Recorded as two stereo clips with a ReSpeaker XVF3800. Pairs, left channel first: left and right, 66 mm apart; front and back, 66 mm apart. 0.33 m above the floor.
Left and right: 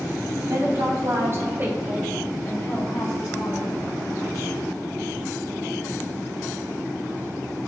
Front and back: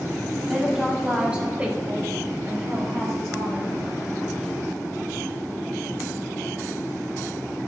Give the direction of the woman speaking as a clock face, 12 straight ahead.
3 o'clock.